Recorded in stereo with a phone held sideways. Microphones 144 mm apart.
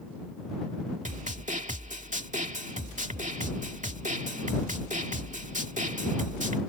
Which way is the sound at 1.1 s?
60° right (ahead or behind).